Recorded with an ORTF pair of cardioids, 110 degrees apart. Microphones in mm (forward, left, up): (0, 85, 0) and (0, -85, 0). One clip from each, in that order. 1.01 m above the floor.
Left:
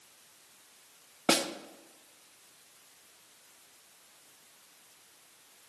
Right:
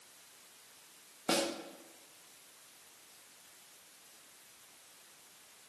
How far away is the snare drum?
About 0.8 m.